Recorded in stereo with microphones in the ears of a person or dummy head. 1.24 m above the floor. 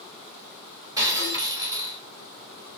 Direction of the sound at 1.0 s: 20° right (ahead or behind).